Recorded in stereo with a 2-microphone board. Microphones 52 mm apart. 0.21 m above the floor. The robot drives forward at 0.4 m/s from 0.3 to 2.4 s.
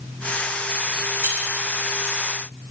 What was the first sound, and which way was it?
Keys jangling, 45° right (ahead or behind).